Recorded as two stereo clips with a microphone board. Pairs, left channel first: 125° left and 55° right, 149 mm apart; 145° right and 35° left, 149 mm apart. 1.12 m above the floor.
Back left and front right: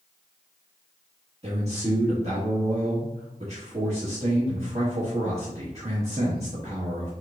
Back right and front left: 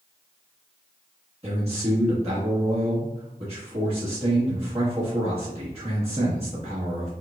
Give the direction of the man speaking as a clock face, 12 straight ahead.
12 o'clock.